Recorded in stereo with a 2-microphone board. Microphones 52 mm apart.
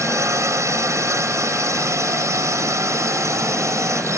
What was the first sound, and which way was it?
A drone, 75° right (ahead or behind).